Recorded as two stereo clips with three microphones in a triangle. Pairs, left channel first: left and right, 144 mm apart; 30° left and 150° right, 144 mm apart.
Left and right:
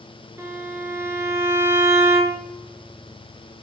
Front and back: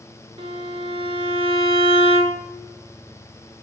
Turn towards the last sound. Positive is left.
turn(degrees=-150)